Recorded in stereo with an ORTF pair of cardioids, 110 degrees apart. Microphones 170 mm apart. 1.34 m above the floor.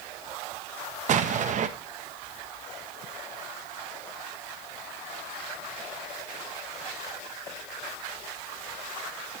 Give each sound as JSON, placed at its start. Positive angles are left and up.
{"t": 1.1, "sound": "an explosion", "azimuth_deg": -50, "distance_m": 1.0}